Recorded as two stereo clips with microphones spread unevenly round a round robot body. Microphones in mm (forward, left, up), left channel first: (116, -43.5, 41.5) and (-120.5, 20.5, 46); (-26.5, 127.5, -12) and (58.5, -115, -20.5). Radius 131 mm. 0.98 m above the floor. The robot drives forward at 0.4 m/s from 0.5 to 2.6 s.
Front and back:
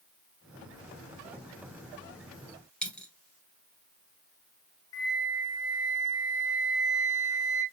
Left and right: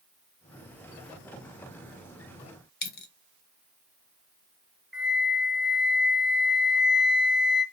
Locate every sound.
2.8 s a dropped coin: 70° left, 1.4 m
4.9 s a flute: 20° left, 2 m